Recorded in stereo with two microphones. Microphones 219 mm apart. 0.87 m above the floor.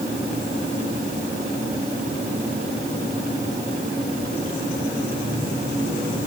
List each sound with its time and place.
Only background noise.